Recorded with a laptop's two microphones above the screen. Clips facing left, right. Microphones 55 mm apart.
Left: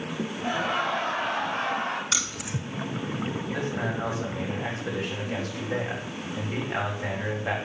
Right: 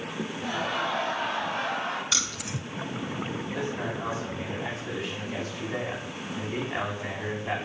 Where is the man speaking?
65° left (ahead or behind), 7 m.